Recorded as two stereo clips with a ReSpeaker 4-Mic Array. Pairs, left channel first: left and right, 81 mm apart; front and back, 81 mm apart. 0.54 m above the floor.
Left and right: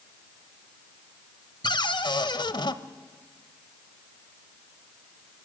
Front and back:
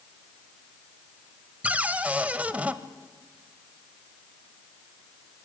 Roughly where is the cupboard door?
Left.